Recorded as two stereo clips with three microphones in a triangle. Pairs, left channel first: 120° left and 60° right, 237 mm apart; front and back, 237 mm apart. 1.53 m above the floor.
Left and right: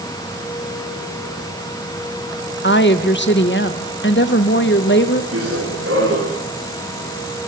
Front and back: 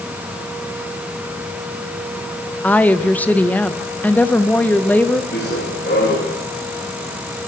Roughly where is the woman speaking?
Left.